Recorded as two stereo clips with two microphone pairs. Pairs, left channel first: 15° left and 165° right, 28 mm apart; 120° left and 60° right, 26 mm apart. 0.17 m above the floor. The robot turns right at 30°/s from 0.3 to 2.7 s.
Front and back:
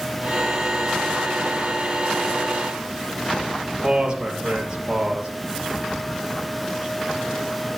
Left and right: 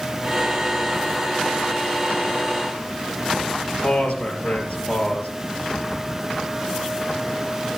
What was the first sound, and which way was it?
A man speaking, 140° left.